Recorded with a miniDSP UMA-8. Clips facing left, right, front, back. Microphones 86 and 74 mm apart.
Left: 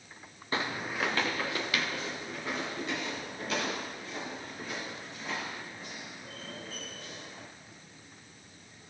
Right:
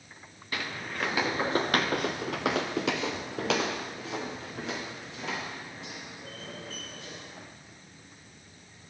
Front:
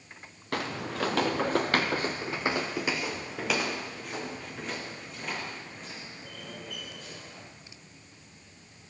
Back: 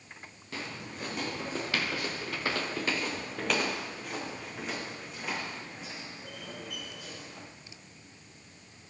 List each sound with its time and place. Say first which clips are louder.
0.5 s footsteps: left 2 dB, front 8 dB; 30° left, 0.7 m; by 7.5 s 100° right, 4 m